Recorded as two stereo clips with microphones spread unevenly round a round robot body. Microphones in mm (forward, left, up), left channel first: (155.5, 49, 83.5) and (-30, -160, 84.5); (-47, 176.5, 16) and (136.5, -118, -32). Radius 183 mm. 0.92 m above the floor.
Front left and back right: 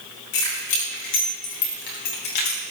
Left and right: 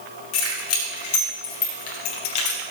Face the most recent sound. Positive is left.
turn(degrees=85)